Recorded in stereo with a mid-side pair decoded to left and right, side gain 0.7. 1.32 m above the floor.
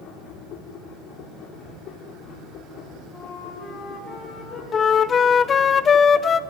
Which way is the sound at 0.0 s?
55° left.